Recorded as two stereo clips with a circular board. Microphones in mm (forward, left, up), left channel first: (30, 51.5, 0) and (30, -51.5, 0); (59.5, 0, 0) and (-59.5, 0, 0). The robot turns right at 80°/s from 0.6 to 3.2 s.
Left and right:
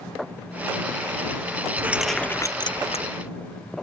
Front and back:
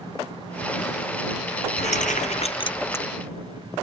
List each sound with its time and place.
1.8 s keys jangling: 25° right; by 3.0 s 80° left